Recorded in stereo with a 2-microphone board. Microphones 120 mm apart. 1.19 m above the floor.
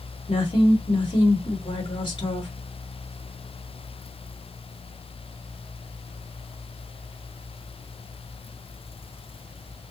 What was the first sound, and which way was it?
A woman speaking, 45° left (ahead or behind).